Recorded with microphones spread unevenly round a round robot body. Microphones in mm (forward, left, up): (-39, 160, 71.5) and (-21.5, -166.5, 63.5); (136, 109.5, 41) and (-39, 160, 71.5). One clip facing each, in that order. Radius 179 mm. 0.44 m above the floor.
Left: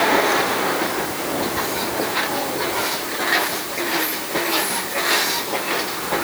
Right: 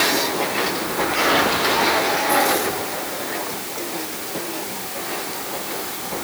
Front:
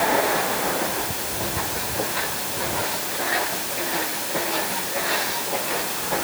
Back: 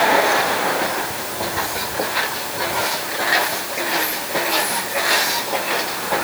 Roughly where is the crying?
I don't hear crying.